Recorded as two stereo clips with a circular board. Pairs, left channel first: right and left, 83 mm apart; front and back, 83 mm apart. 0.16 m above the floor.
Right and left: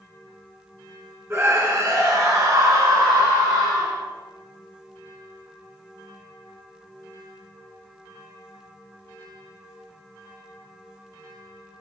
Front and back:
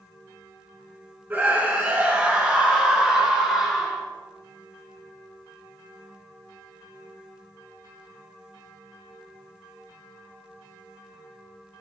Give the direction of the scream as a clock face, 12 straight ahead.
8 o'clock.